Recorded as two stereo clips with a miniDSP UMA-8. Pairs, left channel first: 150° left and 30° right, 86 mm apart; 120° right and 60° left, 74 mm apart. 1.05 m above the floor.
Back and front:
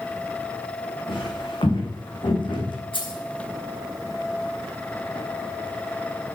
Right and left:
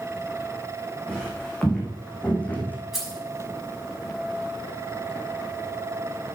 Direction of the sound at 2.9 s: 145° left.